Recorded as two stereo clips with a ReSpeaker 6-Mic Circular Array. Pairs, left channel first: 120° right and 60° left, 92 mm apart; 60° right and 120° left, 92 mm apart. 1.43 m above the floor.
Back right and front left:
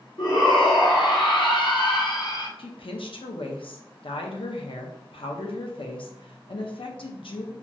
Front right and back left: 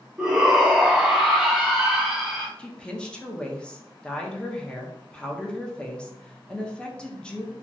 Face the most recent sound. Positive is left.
turn(degrees=-140)